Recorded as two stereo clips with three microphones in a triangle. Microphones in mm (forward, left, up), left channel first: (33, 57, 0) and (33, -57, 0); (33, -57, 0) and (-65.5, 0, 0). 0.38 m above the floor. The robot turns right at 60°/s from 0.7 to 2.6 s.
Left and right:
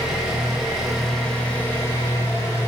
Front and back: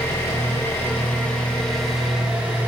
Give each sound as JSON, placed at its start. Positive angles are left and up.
{"t": 0.0, "sound": "an engine running", "azimuth_deg": -10, "distance_m": 1.1}